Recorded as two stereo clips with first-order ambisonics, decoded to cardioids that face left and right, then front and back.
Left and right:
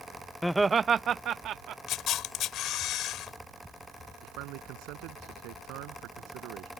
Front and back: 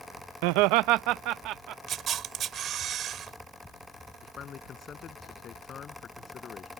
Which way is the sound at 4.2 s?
65° right.